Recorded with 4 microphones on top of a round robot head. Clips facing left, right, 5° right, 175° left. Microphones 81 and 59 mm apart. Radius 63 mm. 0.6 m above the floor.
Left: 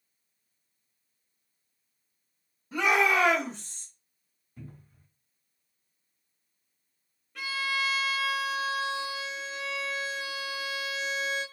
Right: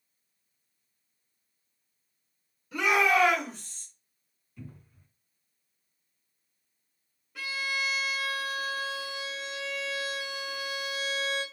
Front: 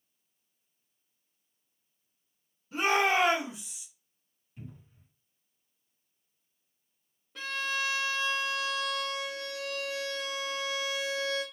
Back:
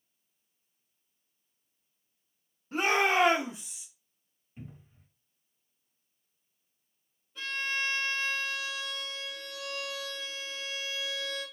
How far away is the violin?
About 0.9 m.